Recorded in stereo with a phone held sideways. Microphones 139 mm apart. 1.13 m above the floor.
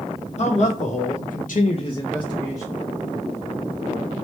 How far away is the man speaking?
About 1.3 m.